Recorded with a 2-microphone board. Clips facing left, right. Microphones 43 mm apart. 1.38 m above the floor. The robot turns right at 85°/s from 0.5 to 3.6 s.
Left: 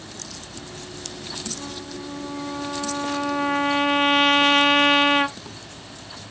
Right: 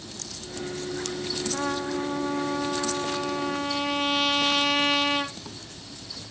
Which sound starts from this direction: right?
A trumpet, at 1.5 s.